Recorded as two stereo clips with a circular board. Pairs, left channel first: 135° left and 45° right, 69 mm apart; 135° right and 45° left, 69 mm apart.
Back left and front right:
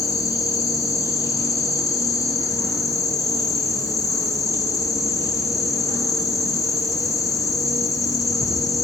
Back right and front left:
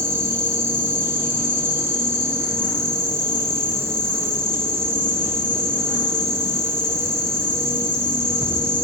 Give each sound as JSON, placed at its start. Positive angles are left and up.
{"t": 0.0, "sound": "an insect", "azimuth_deg": 100, "distance_m": 1.0}